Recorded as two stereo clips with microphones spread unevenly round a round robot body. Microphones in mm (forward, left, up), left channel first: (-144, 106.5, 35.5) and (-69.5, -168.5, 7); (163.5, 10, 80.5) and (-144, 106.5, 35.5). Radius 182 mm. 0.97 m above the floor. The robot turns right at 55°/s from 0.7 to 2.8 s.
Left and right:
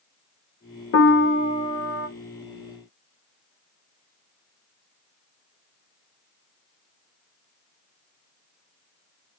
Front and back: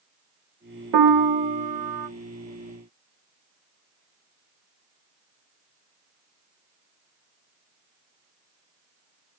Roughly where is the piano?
Behind left.